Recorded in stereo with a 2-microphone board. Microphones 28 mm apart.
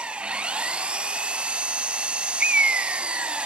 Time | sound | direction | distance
0.0 | an engine running | 40° right (ahead or behind) | 1.8 m
2.4 | a bird | 50° right (ahead or behind) | 0.7 m